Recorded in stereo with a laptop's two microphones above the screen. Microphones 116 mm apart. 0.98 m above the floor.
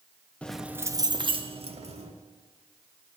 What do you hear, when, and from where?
0.4 s keys jangling: 10° left (ahead or behind), 0.6 m; by 2.1 s 65° right (ahead or behind), 1.5 m